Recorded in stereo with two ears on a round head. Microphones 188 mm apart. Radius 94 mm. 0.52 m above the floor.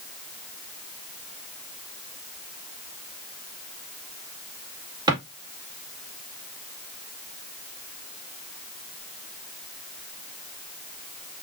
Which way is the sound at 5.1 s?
20° right (ahead or behind).